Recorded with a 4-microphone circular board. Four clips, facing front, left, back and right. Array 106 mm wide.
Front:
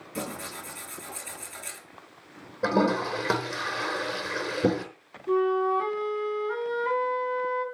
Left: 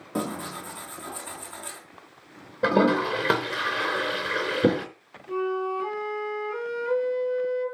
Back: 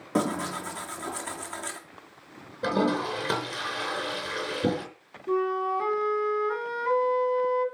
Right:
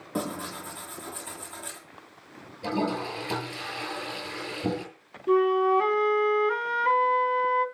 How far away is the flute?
About 2 m.